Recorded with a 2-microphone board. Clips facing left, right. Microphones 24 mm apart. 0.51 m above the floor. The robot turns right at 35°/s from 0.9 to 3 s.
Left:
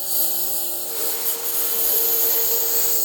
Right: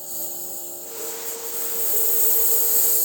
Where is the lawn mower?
85° left; by 3.1 s 160° left.